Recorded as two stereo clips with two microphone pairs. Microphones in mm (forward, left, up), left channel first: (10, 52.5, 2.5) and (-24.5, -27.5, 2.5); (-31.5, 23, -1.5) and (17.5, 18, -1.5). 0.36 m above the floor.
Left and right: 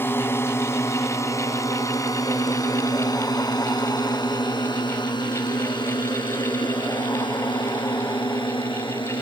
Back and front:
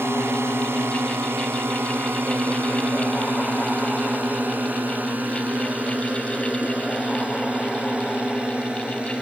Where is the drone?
5° left; by 9.2 s 60° left.